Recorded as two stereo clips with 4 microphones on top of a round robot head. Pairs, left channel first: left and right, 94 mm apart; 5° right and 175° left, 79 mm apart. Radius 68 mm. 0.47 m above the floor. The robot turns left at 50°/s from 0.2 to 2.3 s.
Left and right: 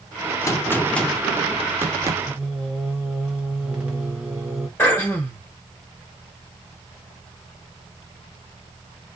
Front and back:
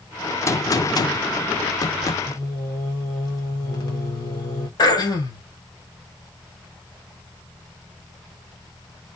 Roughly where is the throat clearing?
Ahead.